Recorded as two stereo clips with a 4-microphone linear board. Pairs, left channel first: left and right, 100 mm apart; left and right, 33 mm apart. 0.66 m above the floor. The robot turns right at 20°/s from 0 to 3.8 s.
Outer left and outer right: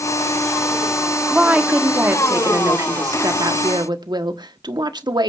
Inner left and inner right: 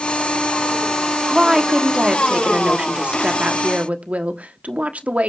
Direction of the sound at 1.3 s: 165° right.